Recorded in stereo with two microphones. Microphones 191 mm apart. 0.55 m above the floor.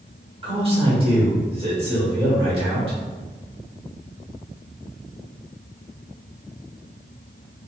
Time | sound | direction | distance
0.4 | a man speaking | 30° right (ahead or behind) | 1.7 m